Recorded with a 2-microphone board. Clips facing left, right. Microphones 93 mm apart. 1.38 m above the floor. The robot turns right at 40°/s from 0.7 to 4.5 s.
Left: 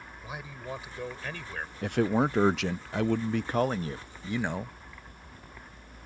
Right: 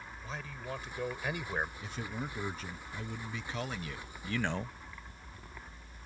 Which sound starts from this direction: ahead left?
A man speaking, at 1.8 s.